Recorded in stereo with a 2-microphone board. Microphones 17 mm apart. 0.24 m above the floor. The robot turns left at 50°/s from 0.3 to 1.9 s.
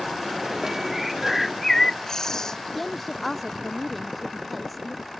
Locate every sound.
0.9 s a bird: 160° right; by 2.6 s 150° left
2.8 s a woman speaking: centre (ahead or behind)